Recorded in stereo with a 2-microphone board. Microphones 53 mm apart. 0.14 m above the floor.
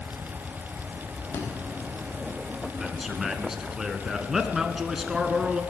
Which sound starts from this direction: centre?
A man speaking, at 2.8 s.